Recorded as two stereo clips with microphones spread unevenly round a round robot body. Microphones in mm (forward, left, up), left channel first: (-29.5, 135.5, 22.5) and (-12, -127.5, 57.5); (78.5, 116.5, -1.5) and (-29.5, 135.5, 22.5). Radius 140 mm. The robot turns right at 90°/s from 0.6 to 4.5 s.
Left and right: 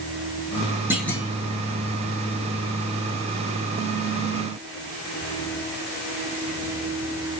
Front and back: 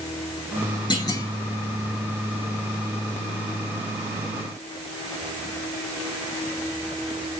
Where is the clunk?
Straight ahead, 1.0 m; by 1.3 s 35° left, 1.0 m.